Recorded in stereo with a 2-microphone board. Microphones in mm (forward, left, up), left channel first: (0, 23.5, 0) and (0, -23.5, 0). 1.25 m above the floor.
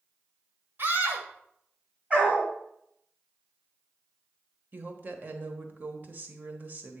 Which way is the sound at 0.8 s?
50° right (ahead or behind).